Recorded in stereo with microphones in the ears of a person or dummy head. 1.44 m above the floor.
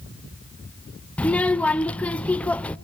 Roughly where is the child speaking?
Centre.